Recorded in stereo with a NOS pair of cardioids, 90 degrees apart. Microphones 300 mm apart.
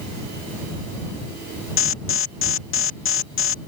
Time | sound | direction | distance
1.8 | an alarm | 45° left | ?